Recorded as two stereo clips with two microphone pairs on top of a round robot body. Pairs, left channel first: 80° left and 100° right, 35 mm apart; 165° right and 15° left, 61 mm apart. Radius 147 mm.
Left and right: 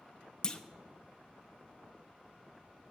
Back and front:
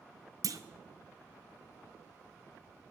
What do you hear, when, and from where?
0.4 s a clunk: 20° left, 0.9 m